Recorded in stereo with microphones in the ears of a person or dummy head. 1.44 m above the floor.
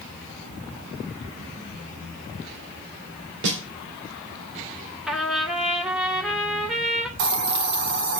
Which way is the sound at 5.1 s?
5° right (ahead or behind).